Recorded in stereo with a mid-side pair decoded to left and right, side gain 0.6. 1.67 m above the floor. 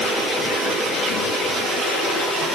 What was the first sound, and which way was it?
Only background noise.